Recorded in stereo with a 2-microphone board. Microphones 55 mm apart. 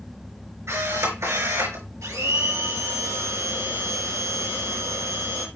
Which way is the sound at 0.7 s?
65° right (ahead or behind).